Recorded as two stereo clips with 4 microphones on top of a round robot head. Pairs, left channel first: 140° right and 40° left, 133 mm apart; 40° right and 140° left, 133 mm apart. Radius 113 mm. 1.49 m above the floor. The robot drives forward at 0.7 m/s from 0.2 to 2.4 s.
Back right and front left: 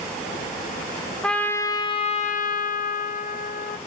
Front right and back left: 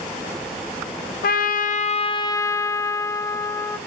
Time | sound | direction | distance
1.2 | a trumpet | 50° right | 0.9 m